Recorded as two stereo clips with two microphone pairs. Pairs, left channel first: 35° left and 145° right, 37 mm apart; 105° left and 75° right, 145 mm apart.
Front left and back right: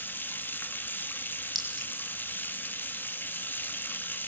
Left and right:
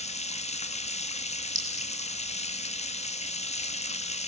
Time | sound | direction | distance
0.0 | running water | 65° left | 1.3 m
1.6 | a clink | 45° right | 5 m